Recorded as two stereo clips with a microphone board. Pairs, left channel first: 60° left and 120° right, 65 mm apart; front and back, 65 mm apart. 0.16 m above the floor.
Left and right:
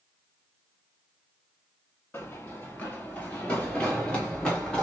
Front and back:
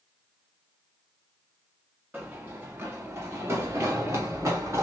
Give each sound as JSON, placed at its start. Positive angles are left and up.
{"t": 2.1, "sound": "running footsteps", "azimuth_deg": 115, "distance_m": 1.3}